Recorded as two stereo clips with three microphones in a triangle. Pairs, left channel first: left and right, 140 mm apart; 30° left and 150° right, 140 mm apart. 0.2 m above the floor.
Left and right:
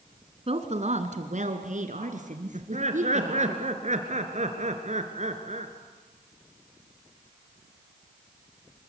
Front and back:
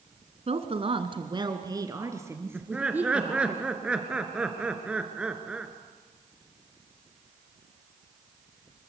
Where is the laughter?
70° right, 3 m.